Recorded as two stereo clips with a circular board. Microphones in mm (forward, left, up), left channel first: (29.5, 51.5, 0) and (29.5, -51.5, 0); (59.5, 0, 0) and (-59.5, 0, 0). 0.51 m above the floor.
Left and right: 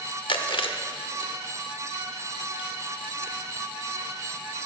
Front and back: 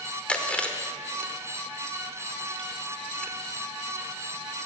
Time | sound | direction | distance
0.3 | chewing | 80° left | 0.9 m